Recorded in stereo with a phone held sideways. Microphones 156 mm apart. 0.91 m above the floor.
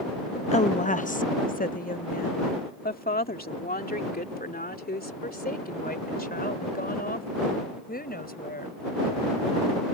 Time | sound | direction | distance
0.5 | a woman speaking | 45° left (ahead or behind) | ?